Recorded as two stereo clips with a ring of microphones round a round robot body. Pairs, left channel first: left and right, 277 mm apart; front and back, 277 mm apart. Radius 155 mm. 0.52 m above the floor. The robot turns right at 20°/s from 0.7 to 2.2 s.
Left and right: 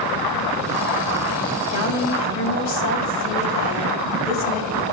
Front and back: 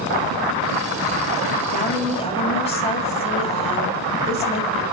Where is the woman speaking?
60° left, 3 m; by 4.8 s 70° left, 3 m.